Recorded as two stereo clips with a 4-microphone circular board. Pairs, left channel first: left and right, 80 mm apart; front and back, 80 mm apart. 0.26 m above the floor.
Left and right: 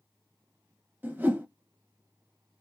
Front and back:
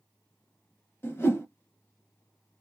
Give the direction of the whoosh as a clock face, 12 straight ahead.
1 o'clock.